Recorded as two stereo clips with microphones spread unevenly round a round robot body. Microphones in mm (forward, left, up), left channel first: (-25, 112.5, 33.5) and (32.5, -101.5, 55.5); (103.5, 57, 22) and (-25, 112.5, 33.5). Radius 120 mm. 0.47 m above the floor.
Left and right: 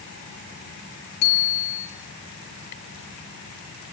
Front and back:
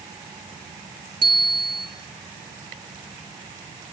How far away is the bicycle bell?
About 6.5 m.